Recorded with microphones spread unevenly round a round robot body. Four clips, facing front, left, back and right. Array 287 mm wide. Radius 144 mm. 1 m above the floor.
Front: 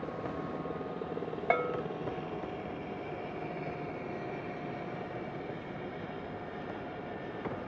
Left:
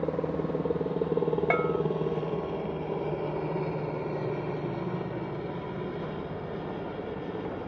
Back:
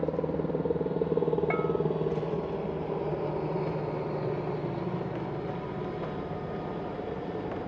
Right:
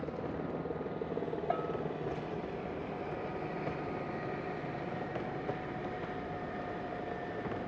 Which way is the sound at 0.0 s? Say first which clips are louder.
Left 9 dB, back 8 dB; 135° left.